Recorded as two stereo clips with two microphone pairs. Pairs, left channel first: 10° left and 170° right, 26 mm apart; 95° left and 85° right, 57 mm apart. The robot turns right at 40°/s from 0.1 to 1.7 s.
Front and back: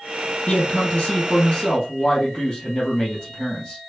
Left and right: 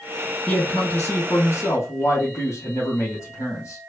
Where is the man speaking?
15° left, 2.5 m; by 3.8 s 65° left, 2.5 m.